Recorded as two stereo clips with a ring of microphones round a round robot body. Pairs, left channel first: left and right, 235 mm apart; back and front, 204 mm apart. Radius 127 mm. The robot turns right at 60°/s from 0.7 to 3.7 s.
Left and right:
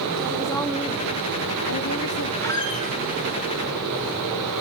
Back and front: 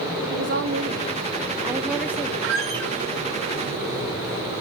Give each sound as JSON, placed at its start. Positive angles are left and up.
{"t": 0.3, "sound": "a woman speaking", "azimuth_deg": 15, "distance_m": 2.0}
{"t": 2.4, "sound": "a squeak", "azimuth_deg": 5, "distance_m": 1.6}